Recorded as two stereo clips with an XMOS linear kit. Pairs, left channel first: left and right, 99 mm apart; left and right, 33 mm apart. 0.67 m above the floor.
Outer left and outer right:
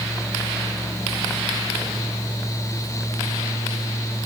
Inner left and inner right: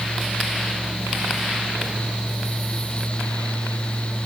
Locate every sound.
Only background noise.